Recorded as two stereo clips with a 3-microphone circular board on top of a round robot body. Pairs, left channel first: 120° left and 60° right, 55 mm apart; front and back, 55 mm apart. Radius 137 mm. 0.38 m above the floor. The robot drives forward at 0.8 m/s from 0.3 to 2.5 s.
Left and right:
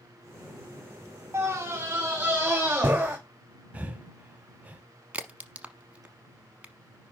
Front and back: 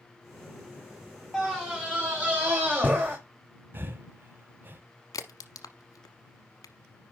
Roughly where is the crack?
Ahead.